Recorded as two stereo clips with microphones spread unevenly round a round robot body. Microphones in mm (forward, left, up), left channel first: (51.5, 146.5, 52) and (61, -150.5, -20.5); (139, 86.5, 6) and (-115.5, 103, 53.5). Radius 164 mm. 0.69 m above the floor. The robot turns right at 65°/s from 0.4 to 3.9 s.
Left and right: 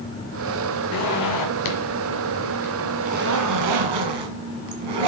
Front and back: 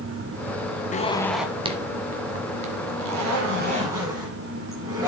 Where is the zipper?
60° left, 1.5 m; by 5.1 s 105° right, 1.5 m.